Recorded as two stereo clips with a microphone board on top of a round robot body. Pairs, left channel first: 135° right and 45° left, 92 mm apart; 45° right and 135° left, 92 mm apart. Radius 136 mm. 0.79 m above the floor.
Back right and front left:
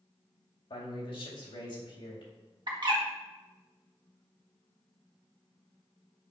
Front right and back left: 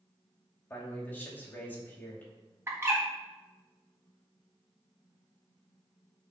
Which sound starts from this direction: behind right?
A man speaking, at 0.7 s.